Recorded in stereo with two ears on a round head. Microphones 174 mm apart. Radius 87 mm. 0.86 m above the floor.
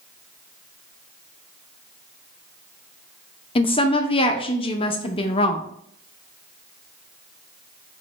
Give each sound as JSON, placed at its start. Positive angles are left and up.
{"t": 3.5, "sound": "a woman speaking", "side_deg": 30, "distance_m": 0.5}